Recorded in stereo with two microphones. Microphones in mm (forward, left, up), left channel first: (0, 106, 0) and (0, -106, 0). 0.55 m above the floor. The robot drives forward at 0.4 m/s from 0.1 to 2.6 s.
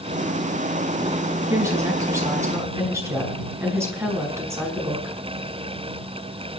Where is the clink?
No clink in this recording.